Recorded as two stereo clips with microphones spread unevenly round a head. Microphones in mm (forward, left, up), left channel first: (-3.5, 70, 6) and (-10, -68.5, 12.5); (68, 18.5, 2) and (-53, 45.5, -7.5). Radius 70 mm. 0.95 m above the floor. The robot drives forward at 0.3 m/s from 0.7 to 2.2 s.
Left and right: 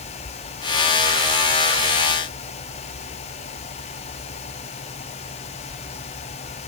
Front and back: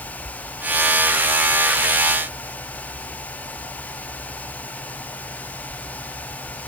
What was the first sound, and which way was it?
Only background noise.